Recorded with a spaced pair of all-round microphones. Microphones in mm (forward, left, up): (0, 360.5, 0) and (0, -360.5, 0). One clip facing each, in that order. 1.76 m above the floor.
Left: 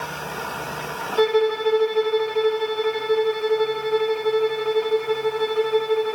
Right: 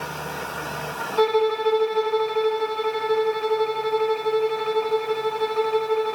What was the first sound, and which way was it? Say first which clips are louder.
A violin: left 1 dB; 45° left (ahead or behind).